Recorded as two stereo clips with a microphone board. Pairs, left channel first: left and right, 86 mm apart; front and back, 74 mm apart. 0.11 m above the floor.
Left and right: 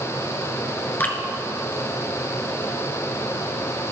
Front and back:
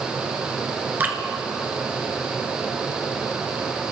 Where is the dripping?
140° left, 1.4 m.